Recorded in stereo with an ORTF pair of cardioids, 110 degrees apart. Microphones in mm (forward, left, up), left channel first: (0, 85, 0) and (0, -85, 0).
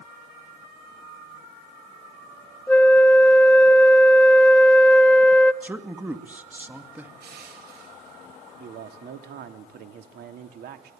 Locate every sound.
2.7 s a flute: 10° left, 1.4 m
5.6 s a man speaking: 10° right, 2.5 m
7.2 s crushing: 65° right, 8.5 m
8.6 s a man speaking: 70° right, 3 m